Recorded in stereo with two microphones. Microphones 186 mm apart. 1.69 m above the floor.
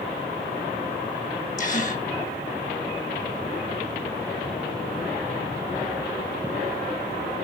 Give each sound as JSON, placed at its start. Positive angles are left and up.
{"t": 1.6, "sound": "a gasp", "side_deg": 45, "distance_m": 1.6}